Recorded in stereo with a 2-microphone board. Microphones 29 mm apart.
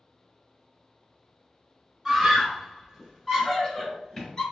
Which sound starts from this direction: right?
A scream, at 2.0 s.